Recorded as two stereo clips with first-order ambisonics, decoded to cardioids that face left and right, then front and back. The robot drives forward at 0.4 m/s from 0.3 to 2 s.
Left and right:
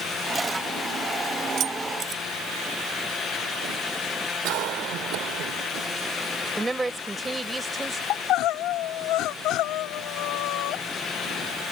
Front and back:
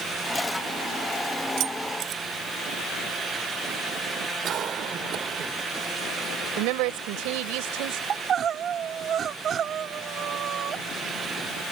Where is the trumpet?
I don't hear a trumpet.